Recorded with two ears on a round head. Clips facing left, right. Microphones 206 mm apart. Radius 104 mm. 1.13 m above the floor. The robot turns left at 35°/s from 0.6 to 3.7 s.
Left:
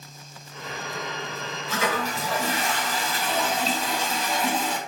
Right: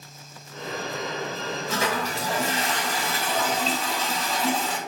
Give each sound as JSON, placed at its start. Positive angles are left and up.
{"t": 1.7, "sound": "a toilet flushing", "azimuth_deg": -120, "distance_m": 1.3}